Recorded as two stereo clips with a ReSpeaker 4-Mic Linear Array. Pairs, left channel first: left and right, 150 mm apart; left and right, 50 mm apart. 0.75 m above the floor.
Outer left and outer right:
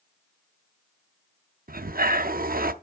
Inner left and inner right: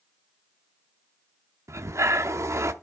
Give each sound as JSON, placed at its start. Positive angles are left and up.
{"t": 1.7, "sound": "breathing", "side_deg": -75, "distance_m": 0.6}